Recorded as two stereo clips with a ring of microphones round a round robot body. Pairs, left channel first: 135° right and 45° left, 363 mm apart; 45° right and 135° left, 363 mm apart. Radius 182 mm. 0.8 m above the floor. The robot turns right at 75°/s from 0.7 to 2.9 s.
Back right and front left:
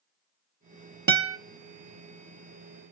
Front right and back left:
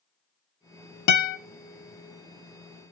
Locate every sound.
1.1 s a guitar: 15° right, 1.2 m; by 1.4 s 10° left, 1.2 m